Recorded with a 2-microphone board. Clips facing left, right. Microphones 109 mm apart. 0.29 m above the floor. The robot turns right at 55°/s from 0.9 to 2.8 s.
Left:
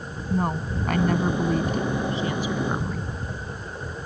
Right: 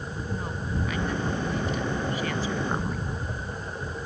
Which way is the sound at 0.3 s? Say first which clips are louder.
Left 8 dB; 80° left.